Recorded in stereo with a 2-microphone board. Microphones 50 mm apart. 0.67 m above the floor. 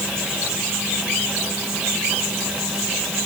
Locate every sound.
Only background noise.